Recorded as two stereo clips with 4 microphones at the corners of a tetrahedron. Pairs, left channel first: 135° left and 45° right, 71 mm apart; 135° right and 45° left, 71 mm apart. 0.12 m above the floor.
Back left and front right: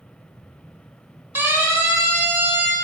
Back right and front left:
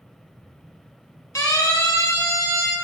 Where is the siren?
100° right, 4 m.